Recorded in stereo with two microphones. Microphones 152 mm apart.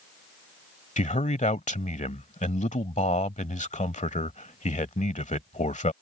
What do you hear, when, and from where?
1.0 s a man speaking: 50° left (ahead or behind)